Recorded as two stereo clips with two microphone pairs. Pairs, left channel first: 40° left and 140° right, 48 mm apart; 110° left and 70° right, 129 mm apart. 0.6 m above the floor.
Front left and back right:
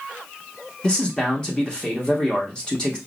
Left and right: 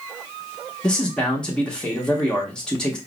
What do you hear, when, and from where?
0.8 s a man speaking: 40° left, 1.0 m